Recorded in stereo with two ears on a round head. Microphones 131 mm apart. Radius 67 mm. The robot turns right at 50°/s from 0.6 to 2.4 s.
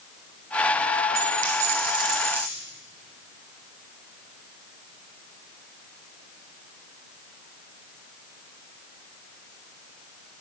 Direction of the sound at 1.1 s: 75° right.